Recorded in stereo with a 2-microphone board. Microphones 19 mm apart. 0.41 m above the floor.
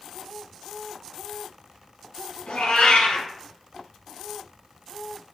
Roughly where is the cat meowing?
Left.